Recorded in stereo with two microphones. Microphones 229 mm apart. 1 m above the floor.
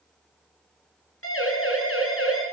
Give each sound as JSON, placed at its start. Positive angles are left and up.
{"t": 1.2, "sound": "a siren", "side_deg": 65, "distance_m": 10.0}